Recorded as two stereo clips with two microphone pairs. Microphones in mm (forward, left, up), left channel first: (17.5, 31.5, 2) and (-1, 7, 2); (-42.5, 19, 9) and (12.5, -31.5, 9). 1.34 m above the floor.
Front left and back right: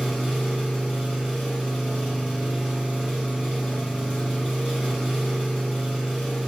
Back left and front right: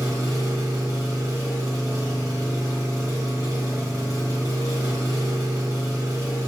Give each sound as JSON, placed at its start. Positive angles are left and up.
{"t": 0.0, "sound": "an engine running", "azimuth_deg": -85, "distance_m": 2.0}